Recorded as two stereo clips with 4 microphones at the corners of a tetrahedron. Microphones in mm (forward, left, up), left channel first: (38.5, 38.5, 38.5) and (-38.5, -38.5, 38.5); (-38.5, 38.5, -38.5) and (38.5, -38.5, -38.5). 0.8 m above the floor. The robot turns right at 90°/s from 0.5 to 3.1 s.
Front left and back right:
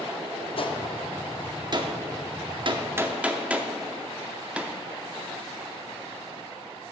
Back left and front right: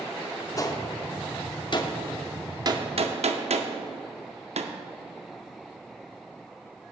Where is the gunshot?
75° left, 0.5 m; by 4.7 s 55° right, 0.5 m.